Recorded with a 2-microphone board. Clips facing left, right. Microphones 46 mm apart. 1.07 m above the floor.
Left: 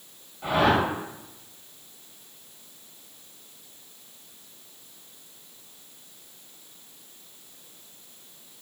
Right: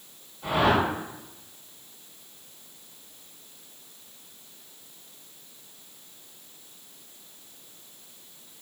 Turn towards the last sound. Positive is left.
turn(degrees=55)  # may be behind; listen again after turning